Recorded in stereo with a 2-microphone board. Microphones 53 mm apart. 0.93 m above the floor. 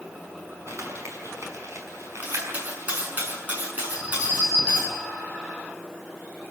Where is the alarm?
20° right (ahead or behind), 8.5 m.